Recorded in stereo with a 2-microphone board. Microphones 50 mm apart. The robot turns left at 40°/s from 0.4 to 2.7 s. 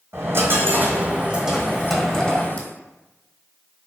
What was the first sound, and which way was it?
A dropped coin, 125° right.